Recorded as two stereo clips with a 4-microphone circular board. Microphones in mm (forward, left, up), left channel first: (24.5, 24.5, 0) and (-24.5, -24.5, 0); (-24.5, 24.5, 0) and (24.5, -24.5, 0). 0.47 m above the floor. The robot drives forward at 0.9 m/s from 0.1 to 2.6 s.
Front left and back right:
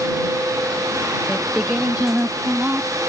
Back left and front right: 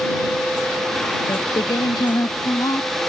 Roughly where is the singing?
Behind left.